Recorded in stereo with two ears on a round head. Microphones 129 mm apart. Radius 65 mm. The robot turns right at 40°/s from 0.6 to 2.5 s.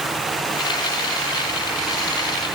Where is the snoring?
I don't hear snoring.